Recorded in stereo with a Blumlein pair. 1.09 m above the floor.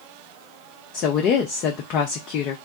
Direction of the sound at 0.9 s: 35° left.